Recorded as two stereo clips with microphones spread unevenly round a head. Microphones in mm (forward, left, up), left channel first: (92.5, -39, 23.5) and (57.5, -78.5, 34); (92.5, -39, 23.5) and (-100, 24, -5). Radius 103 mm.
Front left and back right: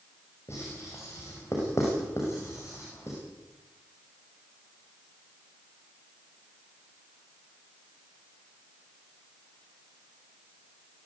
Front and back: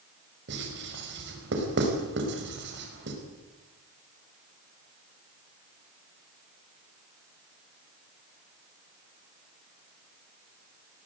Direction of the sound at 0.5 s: 125° left.